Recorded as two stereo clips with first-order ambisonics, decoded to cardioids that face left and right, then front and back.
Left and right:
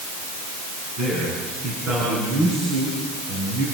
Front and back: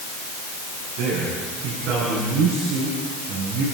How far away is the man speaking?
About 7.5 m.